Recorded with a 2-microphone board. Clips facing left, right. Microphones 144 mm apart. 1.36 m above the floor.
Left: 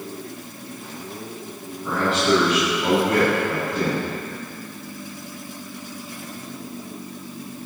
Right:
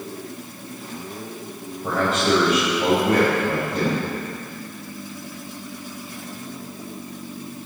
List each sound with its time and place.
1.8 s a man speaking: 45° right (ahead or behind), 6 m